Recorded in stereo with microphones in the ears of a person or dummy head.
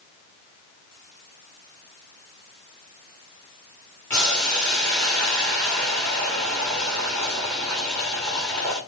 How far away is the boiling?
About 2 m.